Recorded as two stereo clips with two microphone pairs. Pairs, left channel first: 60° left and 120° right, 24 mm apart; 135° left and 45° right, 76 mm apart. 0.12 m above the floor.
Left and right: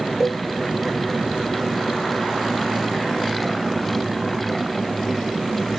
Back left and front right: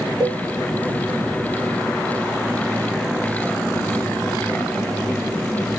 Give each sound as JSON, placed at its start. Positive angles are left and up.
{"t": 0.2, "sound": "a cowbell", "azimuth_deg": -40, "distance_m": 1.5}